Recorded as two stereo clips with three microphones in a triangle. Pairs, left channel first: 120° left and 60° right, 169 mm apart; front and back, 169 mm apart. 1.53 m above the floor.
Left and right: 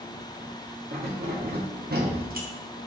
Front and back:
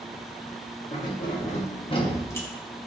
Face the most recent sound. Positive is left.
turn(degrees=-80)